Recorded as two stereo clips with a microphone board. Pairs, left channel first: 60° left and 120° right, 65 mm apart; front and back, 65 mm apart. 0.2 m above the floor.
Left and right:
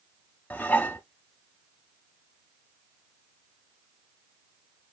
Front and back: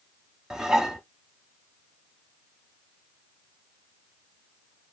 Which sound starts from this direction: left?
Dishes clattering, at 0.5 s.